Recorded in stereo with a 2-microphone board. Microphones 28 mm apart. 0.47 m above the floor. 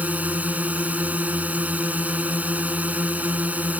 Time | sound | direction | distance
0.0 | a drone | 75° right (ahead or behind) | ?